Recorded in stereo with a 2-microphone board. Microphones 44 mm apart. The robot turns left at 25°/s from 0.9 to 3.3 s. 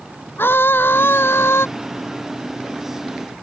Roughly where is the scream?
Left.